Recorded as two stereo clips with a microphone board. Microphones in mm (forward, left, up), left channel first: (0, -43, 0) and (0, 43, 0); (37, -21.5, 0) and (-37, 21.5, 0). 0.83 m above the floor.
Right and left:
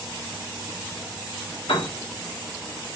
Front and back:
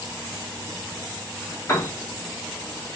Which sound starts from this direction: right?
A piano, at 1.7 s.